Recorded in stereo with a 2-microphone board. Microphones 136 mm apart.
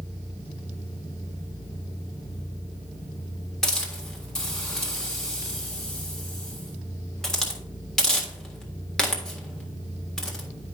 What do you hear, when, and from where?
3.6 s a hiss: 5° left (ahead or behind), 1.5 m